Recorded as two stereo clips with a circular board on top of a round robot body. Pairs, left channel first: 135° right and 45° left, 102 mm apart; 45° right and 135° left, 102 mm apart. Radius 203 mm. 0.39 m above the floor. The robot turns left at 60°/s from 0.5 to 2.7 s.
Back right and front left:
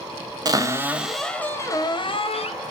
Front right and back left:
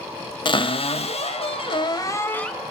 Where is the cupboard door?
5° right, 0.7 m; by 2.5 s 130° right, 0.7 m.